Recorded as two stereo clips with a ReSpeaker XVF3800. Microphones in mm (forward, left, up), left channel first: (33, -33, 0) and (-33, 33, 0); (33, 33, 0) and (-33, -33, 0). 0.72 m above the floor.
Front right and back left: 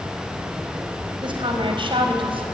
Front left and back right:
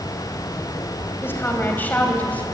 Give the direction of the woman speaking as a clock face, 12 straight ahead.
8 o'clock.